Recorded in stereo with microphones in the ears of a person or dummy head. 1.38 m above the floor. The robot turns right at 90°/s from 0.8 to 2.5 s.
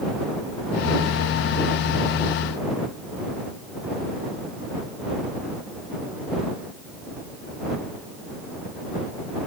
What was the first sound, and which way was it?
Only background noise.